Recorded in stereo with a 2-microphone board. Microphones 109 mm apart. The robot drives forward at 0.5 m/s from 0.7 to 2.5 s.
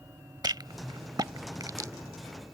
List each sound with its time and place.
0.4 s a rattle: 40° right (ahead or behind); by 1.9 s 35° right (ahead or behind)